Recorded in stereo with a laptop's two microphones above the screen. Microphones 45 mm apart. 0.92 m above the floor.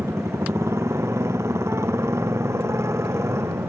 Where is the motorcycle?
85° right.